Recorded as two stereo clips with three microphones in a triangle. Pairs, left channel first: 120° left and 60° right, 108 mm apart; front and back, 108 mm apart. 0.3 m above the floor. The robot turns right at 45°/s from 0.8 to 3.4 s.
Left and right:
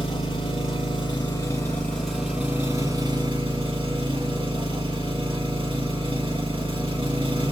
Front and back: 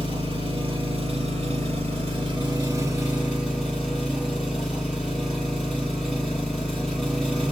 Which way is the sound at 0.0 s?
150° left.